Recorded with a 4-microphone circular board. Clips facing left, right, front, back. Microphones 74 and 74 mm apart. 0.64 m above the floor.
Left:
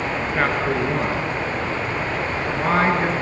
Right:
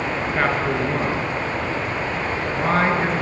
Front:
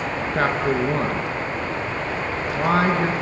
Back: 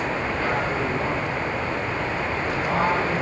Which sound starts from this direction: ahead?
A man speaking, at 0.3 s.